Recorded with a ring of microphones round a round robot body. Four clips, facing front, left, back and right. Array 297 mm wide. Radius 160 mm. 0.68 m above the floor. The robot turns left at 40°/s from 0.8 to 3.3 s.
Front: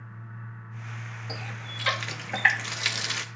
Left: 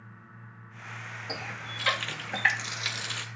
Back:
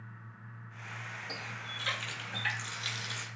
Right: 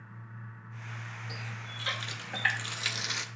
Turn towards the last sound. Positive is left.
turn(degrees=-15)